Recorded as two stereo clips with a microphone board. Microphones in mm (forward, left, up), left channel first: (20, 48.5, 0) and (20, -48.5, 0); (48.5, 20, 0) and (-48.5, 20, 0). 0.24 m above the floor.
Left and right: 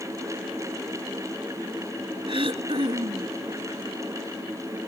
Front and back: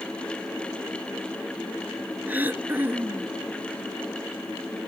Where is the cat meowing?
No cat meowing in this recording.